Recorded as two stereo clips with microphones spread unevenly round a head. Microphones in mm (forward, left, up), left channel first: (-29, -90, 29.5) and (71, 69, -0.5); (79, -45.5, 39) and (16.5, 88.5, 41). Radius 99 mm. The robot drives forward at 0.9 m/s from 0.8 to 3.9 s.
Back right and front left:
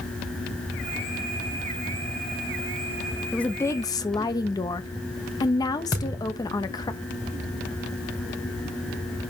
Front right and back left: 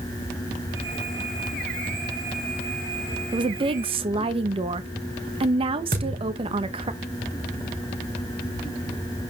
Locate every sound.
3.3 s a woman speaking: 140° left, 0.7 m; by 6.9 s 165° left, 1.1 m
5.9 s a thud: 165° left, 6 m